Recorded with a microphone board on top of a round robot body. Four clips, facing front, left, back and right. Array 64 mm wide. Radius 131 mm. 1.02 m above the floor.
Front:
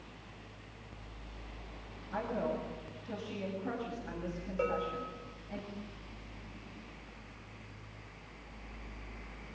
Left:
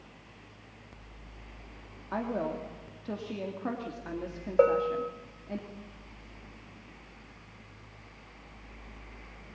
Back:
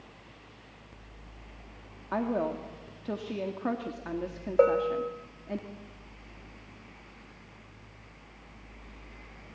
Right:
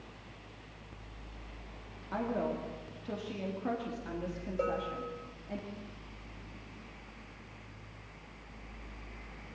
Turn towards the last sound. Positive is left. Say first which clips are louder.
# left 11 dB, back 11 dB
turn(degrees=135)